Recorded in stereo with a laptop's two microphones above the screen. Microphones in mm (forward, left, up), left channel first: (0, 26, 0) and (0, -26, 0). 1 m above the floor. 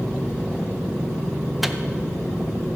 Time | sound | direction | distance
1.6 | a microwave | centre (ahead or behind) | 0.5 m